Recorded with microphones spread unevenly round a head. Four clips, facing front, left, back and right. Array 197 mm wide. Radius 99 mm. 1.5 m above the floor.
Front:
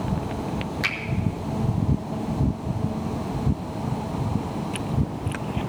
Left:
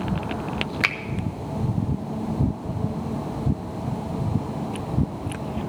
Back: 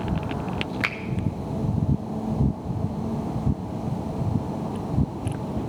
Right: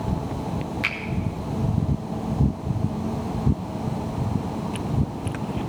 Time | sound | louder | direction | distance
0.8 | a finger snap | left 3 dB, even | 95° left | 0.9 m